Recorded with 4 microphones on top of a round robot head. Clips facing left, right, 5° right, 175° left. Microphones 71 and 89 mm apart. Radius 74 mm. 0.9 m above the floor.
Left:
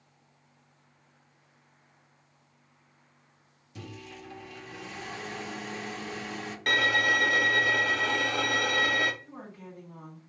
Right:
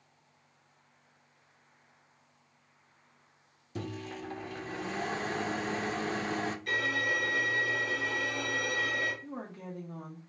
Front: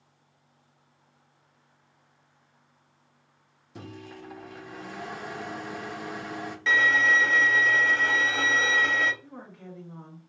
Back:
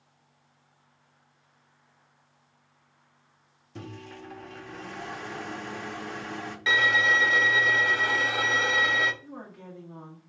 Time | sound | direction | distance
3.8 | a microwave | 85° right | 0.5 m
6.7 | a violin | 95° left | 0.5 m
9.2 | a woman speaking | 105° right | 1.4 m